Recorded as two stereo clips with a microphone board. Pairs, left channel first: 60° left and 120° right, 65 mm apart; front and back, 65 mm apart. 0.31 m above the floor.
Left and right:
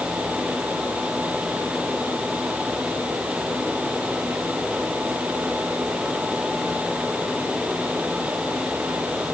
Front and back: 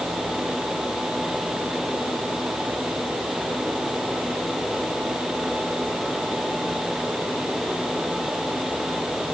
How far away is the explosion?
I don't hear an explosion.